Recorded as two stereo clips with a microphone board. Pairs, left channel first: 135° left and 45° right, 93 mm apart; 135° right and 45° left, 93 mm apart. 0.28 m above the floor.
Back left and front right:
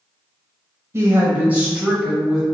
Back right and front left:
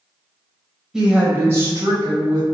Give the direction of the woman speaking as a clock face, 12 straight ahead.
1 o'clock.